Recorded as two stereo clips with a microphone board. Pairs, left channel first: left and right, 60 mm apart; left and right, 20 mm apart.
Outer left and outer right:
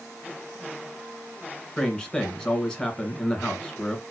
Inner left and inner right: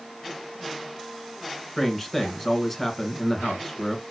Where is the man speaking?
10° left (ahead or behind), 1.6 m.